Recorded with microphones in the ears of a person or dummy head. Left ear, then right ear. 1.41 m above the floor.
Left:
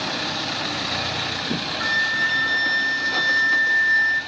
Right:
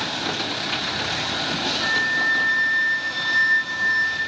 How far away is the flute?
About 1.8 m.